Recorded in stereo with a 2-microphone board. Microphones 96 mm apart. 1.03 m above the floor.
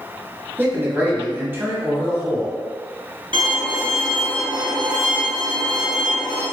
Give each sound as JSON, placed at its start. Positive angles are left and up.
{"t": 0.6, "sound": "a man speaking", "side_deg": -25, "distance_m": 0.9}
{"t": 3.3, "sound": "a violin", "side_deg": -70, "distance_m": 1.4}